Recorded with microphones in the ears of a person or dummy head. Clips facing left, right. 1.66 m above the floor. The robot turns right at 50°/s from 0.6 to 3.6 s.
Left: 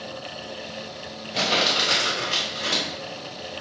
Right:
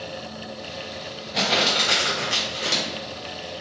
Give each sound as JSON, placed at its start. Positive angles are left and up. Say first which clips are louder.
{"t": 1.3, "sound": "crumpling", "louder": "right 1 dB", "azimuth_deg": -175, "distance_m": 1.4}